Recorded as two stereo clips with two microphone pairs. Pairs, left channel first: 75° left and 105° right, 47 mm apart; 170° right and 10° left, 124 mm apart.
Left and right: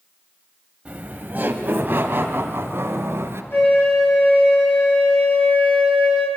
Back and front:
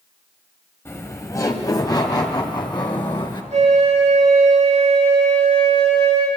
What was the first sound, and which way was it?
Laughter, 125° right.